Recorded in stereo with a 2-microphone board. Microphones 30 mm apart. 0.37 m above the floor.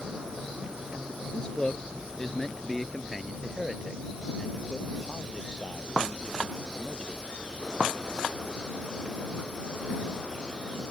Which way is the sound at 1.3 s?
25° left (ahead or behind).